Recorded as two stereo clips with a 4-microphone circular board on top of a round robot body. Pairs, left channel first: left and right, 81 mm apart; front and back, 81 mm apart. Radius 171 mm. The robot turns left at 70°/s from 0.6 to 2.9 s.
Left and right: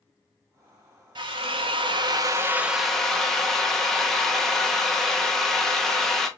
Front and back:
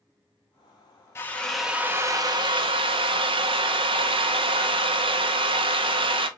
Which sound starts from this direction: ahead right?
A drill, at 1.1 s.